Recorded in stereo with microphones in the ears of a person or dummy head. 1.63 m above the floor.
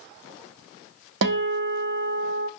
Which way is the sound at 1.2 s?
65° right (ahead or behind).